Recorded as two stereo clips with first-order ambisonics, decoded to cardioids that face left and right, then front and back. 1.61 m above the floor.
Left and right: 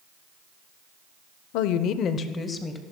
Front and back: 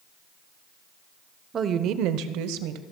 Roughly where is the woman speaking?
Left.